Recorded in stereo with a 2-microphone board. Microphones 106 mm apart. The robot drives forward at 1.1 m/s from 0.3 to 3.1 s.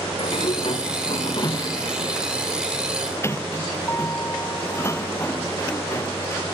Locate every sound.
0.2 s a sliding door: 60° left (ahead or behind); by 6.4 s 25° left (ahead or behind)